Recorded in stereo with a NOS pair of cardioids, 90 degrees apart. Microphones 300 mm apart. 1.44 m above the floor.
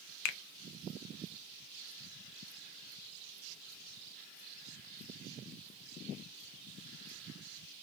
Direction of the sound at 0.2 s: 70° left.